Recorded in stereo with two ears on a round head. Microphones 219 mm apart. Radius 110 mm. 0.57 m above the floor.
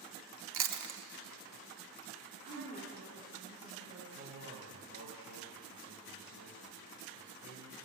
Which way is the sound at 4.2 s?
40° right (ahead or behind).